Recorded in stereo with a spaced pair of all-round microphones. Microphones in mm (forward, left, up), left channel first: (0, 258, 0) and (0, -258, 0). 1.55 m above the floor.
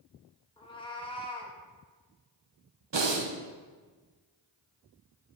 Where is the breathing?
55° right (ahead or behind), 0.8 m.